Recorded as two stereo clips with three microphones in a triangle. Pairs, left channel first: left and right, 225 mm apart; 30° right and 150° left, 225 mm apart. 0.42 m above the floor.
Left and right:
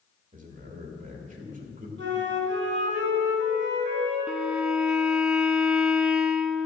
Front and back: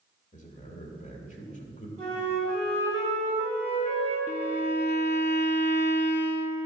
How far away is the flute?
About 3.5 m.